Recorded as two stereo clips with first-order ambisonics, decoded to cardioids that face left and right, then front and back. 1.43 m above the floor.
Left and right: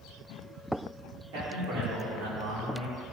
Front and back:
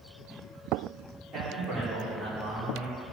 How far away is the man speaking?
About 4 m.